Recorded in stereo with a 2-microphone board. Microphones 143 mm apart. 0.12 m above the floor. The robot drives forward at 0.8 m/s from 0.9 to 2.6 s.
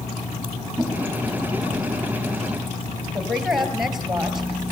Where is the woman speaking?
Centre (ahead or behind), 3 m.